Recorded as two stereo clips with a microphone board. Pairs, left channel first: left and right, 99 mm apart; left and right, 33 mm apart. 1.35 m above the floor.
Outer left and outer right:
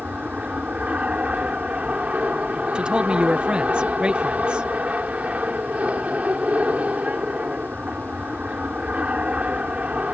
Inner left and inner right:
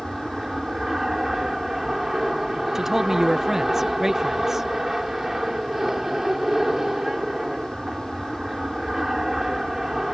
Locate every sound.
0.0 s an aircraft: 15° right (ahead or behind)
2.8 s a man speaking: 10° right (ahead or behind)